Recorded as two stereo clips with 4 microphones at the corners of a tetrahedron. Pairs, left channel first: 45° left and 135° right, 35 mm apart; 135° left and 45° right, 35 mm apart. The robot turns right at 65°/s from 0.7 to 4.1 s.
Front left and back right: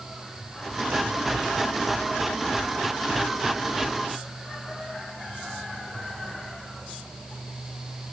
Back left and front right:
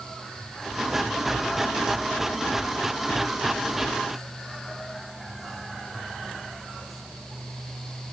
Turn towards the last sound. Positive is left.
No sound to turn to.